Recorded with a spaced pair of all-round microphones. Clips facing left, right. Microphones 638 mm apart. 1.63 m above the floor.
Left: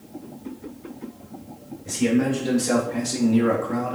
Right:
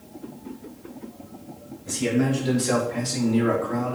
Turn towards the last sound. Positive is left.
turn(degrees=40)  # may be behind; listen again after turning